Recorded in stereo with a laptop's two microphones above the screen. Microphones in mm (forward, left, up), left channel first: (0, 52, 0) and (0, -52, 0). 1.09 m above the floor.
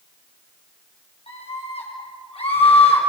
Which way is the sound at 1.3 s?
70° left (ahead or behind).